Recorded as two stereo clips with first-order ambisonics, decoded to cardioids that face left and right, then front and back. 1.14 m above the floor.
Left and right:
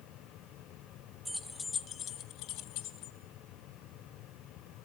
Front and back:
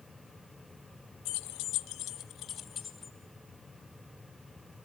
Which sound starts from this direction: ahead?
Keys jangling, at 1.2 s.